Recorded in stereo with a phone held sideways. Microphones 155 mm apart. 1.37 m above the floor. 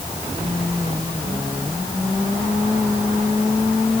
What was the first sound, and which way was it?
Only background noise.